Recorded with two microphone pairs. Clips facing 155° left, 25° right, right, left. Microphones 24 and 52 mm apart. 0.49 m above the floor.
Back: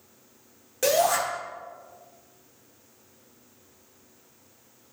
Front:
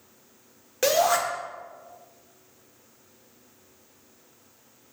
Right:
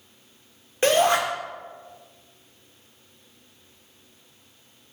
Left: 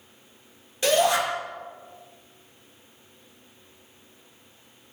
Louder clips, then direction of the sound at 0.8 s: Front 1 dB, right 2 dB; 85° right.